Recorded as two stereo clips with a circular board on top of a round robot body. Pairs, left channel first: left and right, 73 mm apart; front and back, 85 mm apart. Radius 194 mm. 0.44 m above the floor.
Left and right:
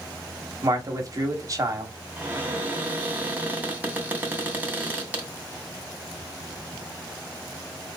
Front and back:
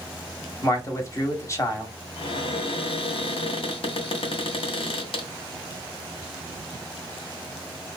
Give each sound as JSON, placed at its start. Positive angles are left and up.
{"t": 0.6, "sound": "a man speaking", "azimuth_deg": -50, "distance_m": 1.3}
{"t": 2.2, "sound": "a cupboard door", "azimuth_deg": -20, "distance_m": 0.9}